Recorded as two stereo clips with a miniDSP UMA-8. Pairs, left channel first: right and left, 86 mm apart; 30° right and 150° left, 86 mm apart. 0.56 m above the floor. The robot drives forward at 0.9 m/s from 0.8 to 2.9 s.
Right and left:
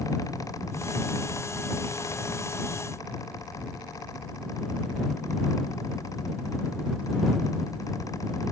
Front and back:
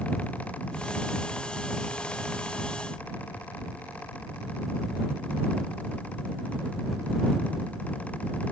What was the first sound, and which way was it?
Only background noise.